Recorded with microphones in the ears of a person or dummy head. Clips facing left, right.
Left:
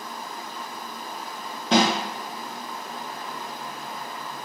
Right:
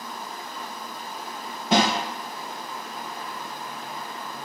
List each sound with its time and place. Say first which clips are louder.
1.7 s a snare drum: left 1 dB; 10° right (ahead or behind), 1.4 m